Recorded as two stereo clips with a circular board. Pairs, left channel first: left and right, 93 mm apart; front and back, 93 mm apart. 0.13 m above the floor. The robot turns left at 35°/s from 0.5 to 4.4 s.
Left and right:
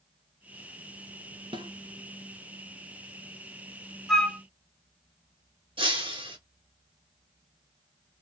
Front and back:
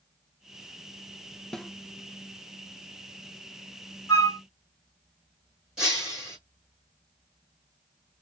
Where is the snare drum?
85° right, 0.6 m; by 1.7 s 90° right, 0.6 m.